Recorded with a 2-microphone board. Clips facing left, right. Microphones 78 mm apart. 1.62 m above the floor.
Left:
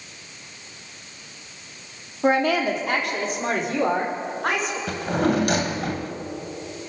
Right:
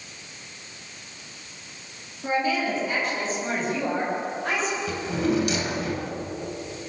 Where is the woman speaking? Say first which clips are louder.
Left 5 dB; 75° left (ahead or behind), 4 m; by 4.8 s 65° left (ahead or behind), 7 m.